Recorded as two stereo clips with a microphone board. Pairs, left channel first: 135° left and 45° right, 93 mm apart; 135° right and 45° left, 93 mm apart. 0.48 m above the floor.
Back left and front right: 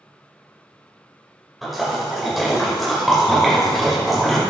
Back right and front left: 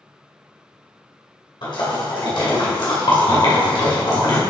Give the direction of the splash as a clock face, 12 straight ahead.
4 o'clock.